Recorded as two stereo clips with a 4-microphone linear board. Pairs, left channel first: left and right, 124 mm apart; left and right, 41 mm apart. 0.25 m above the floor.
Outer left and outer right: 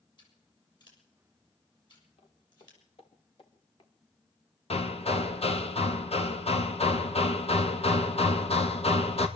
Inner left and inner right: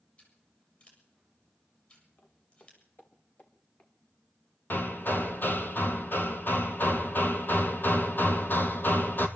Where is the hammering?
55° left (ahead or behind), 2 m.